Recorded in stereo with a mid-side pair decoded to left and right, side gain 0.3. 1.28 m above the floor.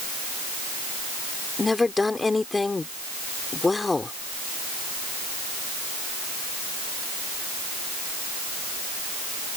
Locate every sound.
1.6 s a woman speaking: 30° left